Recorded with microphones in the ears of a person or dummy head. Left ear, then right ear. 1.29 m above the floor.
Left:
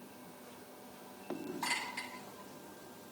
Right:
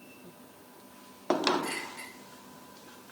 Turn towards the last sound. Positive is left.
turn(degrees=40)  # may be behind; listen again after turning